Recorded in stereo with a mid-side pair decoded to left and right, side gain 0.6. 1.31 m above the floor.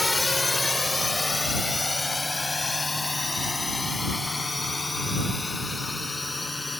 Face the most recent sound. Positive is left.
turn(degrees=10)